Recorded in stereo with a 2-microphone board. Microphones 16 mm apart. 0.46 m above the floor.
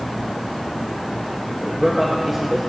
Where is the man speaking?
20° right (ahead or behind), 1.5 m.